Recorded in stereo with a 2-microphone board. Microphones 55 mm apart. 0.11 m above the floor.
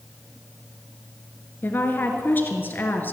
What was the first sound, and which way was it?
A woman speaking, 35° left (ahead or behind).